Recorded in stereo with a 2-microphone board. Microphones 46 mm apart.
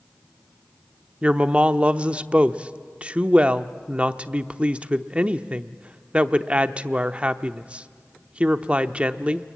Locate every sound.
1.2 s a woman speaking: 25° right (ahead or behind), 0.7 m